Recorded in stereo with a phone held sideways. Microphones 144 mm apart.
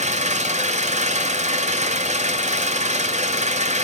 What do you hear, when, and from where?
0.0 s an engine running: 55° right (ahead or behind), 1.2 m